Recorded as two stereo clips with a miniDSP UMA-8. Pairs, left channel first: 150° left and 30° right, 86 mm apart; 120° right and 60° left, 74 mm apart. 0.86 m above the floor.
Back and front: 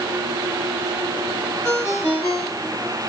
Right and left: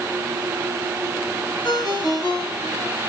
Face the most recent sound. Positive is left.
turn(degrees=-155)